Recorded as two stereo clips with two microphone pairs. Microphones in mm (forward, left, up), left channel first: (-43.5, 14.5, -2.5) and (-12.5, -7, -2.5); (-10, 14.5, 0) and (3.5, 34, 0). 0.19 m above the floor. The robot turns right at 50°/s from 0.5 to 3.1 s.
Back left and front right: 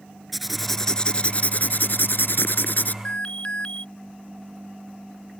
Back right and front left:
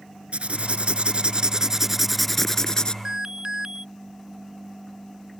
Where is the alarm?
100° left; by 3.9 s 105° left.